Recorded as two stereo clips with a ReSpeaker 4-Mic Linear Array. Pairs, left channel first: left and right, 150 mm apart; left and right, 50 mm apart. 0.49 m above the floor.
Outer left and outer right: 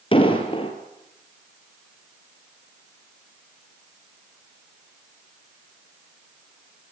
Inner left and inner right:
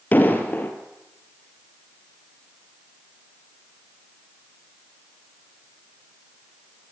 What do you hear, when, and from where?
0.1 s an explosion: 35° left (ahead or behind), 3 m